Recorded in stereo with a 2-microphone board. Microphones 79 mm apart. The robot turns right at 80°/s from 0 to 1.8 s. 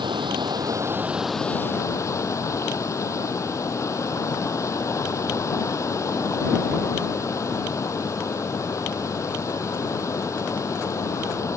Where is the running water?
105° right; by 11.6 s 40° left.